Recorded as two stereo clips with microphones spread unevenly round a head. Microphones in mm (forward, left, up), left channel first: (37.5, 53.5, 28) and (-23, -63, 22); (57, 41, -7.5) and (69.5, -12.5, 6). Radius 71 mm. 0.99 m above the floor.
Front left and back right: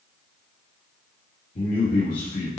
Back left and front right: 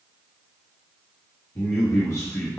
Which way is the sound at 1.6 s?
85° left.